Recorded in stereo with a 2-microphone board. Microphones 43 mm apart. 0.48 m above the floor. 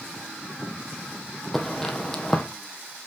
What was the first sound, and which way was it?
Footsteps, 5° left (ahead or behind).